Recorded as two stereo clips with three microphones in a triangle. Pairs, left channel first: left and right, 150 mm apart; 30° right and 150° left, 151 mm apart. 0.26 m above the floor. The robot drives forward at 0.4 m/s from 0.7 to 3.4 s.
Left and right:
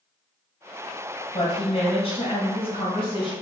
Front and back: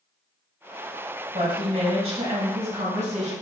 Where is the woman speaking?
115° left, 2 m; by 3.3 s 135° left, 2.5 m.